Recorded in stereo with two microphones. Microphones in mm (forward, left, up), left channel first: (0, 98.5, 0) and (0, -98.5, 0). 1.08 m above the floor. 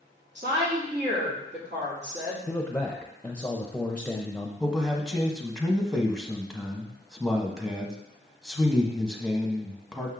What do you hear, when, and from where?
0.3 s a woman speaking: 60° right (ahead or behind), 2.5 m
2.5 s a man speaking: 10° left (ahead or behind), 0.7 m
4.6 s a man speaking: centre (ahead or behind), 1.3 m